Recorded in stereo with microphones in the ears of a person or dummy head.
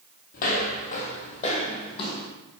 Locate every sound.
0.3 s footsteps: 50° left (ahead or behind), 2 m; by 2.3 s 30° left (ahead or behind), 2.5 m